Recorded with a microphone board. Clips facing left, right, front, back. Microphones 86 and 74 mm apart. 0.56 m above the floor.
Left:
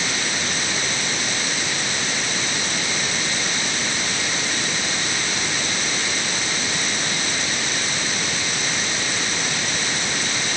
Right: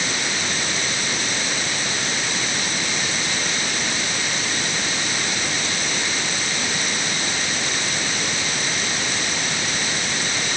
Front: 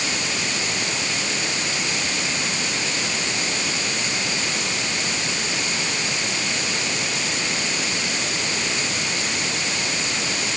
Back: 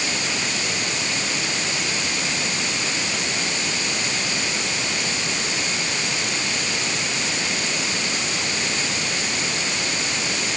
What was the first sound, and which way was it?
Only background noise.